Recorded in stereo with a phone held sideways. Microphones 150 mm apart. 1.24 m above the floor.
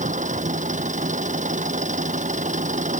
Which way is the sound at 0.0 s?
55° right (ahead or behind).